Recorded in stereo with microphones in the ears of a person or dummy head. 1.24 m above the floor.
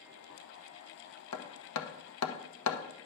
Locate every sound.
1.3 s hammering: 70° left (ahead or behind), 1.1 m